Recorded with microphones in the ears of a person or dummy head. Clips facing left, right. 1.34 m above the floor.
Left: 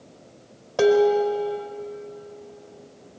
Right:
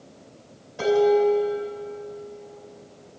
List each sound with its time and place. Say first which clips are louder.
0.8 s dishes clattering: left 1 dB; 80° left, 3.5 m